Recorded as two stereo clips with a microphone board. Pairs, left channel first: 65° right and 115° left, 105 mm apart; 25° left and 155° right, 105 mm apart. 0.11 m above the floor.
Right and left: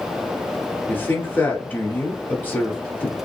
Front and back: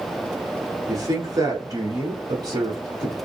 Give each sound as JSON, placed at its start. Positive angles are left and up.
{"t": 0.9, "sound": "a woman speaking", "azimuth_deg": -130, "distance_m": 1.5}